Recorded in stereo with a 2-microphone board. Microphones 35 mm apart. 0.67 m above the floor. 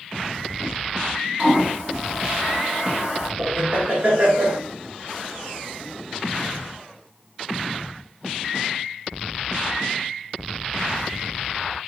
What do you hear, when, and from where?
1.4 s a toilet flushing: 25° right (ahead or behind), 1.6 m
3.4 s laughter: 45° right (ahead or behind), 1.0 m